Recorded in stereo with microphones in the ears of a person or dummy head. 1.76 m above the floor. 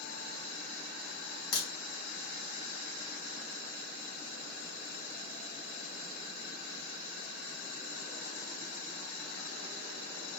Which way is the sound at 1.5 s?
75° left (ahead or behind).